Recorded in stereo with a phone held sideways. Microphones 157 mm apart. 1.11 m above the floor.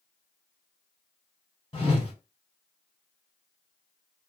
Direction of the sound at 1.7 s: 30° left (ahead or behind).